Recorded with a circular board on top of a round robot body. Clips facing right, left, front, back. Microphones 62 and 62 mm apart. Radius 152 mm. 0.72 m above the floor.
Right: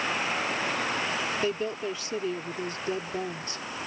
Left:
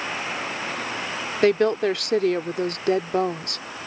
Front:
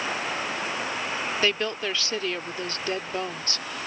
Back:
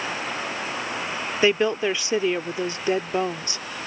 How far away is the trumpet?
I don't hear a trumpet.